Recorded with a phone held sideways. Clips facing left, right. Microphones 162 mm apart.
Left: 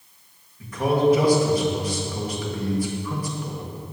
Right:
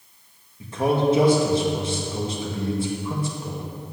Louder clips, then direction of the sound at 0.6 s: Left 1 dB; 25° right (ahead or behind).